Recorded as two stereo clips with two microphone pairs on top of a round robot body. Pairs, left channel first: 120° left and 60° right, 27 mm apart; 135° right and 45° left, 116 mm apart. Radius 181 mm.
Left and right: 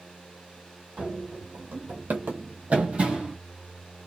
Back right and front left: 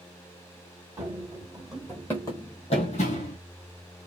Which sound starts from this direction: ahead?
Running footsteps, at 1.0 s.